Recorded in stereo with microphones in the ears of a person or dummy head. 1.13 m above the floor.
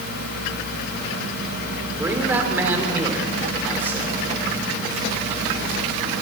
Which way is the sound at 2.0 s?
10° right (ahead or behind).